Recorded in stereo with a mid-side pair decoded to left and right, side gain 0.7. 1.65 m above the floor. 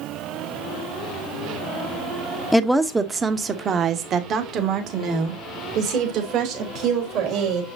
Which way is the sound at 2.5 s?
5° left.